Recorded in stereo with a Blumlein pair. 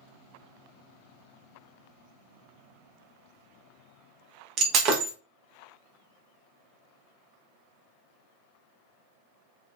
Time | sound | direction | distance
4.6 | breaking glass | 35° right | 0.7 m